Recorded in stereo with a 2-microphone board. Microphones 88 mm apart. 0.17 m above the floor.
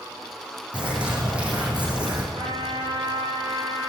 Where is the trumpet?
65° right (ahead or behind), 4.5 m.